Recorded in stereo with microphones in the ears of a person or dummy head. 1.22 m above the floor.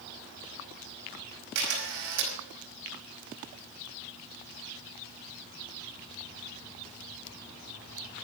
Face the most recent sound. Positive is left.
turn(degrees=-60)  # may be behind; listen again after turning